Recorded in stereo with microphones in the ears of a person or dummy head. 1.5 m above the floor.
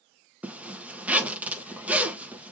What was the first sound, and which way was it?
A zipper, 10° right (ahead or behind).